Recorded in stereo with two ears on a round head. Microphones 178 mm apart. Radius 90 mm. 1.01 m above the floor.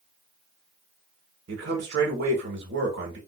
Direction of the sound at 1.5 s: 65° right (ahead or behind).